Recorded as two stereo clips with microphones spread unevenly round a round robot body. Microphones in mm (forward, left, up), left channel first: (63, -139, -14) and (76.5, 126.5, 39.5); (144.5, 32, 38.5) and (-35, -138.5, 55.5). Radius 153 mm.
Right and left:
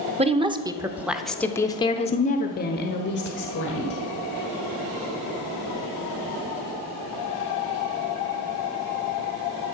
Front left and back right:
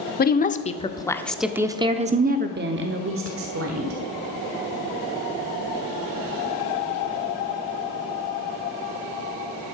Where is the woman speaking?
15° left, 1.0 m; by 4.0 s 125° right, 1.6 m.